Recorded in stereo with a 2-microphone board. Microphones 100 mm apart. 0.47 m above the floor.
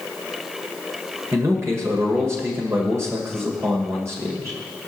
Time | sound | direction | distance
1.3 | a man speaking | 25° right (ahead or behind) | 1.7 m